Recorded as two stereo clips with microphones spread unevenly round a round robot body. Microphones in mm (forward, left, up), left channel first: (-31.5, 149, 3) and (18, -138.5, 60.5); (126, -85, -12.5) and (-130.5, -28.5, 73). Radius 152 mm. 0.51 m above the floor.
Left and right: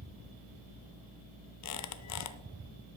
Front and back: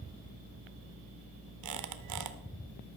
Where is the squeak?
130° left, 0.7 m.